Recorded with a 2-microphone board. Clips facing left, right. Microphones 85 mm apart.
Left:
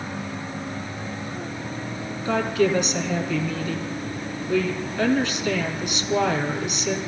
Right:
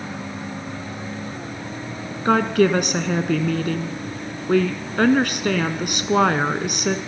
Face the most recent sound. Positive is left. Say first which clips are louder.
# right 4 dB
turn(degrees=-60)  # may be behind; listen again after turning